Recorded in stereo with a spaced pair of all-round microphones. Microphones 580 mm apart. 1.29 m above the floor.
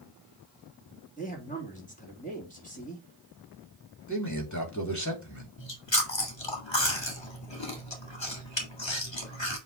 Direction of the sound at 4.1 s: 30° left (ahead or behind).